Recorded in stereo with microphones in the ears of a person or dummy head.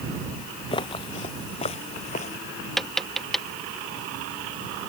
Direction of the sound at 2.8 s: 5° left (ahead or behind).